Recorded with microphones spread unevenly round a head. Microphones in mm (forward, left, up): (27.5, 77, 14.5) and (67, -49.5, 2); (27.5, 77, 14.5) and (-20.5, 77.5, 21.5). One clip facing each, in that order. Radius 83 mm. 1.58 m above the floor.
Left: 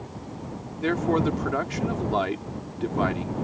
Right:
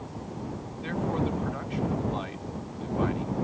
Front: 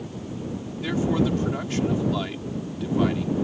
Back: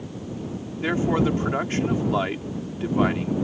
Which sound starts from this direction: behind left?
A man speaking, at 0.8 s.